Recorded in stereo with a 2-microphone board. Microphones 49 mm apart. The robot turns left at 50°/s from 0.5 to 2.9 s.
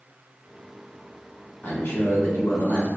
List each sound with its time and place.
1.6 s a man speaking: 130° left, 1.9 m; by 2.9 s 70° left, 1.9 m